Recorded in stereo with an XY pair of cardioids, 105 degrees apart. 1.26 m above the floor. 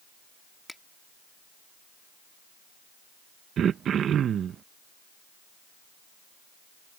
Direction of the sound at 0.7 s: 5° left.